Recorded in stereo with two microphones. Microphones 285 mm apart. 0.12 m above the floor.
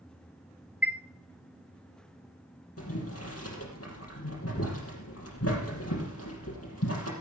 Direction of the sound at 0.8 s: 5° right (ahead or behind).